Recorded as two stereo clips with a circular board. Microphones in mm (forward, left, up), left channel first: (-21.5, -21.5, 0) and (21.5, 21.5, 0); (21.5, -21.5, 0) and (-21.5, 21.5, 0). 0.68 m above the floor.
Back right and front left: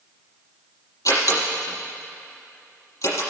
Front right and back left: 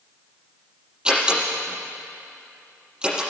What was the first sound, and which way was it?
A door slam, 150° right.